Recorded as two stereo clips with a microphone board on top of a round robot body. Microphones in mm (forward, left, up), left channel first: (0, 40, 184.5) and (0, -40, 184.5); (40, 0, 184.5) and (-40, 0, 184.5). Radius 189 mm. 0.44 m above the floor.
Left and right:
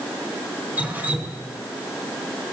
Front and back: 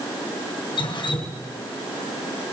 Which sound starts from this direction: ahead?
Dripping, at 0.8 s.